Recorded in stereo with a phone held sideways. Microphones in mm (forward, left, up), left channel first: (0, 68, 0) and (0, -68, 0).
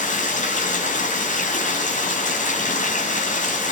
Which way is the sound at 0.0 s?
70° left (ahead or behind).